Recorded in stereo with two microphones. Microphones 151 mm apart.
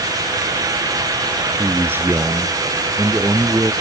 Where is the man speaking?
10° right (ahead or behind); by 3.7 s 15° right (ahead or behind).